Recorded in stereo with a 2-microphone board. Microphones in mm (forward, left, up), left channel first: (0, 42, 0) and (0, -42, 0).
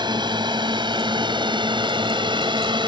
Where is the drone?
65° right (ahead or behind); by 2.9 s 75° right (ahead or behind).